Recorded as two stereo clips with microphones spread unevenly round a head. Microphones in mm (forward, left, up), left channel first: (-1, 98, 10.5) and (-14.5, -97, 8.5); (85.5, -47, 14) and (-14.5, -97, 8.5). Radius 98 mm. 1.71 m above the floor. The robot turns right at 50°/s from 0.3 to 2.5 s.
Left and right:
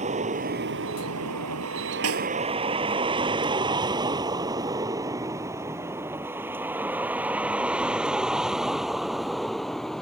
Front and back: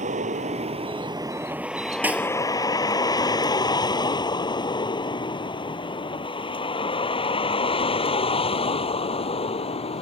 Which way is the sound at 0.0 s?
150° right.